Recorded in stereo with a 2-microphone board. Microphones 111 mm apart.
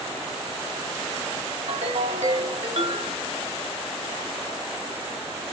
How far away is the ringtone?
About 0.9 m.